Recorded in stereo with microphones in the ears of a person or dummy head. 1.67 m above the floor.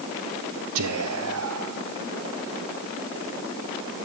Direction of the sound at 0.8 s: 85° right.